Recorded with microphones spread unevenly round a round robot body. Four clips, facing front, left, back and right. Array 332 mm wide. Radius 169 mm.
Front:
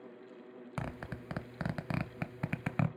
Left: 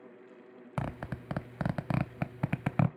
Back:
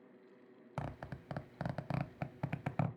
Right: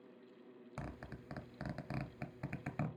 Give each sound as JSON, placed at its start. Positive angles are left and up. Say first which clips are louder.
{"t": 0.8, "sound": "a zipper", "louder": "left 12 dB, front 3 dB", "azimuth_deg": 70, "distance_m": 0.6}